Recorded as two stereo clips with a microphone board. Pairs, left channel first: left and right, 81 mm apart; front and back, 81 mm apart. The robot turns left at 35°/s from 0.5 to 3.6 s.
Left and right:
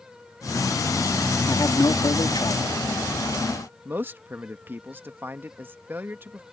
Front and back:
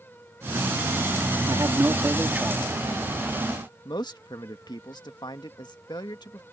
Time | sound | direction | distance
1.5 | a man speaking | 140° left | ?
3.9 | a man speaking | 25° right | ?